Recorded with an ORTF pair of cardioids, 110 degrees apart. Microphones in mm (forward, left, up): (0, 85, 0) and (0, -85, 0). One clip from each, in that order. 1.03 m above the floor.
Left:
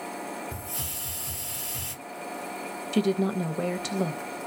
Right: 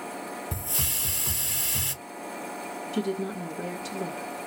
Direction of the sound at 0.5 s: 45° right.